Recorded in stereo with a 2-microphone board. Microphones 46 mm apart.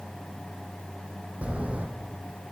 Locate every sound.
1.4 s footsteps: 30° right (ahead or behind), 1.0 m